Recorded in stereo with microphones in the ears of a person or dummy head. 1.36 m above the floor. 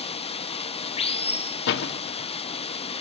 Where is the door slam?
60° left (ahead or behind), 1.8 m.